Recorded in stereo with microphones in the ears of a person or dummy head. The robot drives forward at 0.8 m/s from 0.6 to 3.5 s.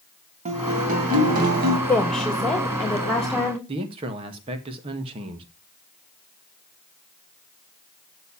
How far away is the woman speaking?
About 1.7 m.